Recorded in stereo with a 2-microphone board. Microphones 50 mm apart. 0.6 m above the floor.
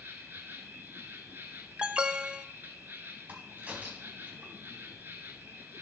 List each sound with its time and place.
0.0 s an insect: 45° right (ahead or behind), 1.7 m
1.8 s an alarm: 20° right (ahead or behind), 0.5 m
3.3 s a crack: 35° right (ahead or behind), 3 m